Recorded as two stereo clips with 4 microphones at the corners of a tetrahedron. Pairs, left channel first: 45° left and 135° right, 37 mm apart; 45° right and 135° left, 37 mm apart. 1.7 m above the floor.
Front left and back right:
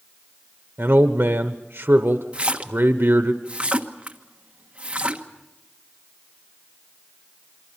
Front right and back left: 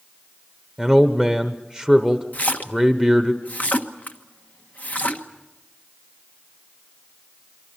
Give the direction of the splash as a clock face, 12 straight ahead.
3 o'clock.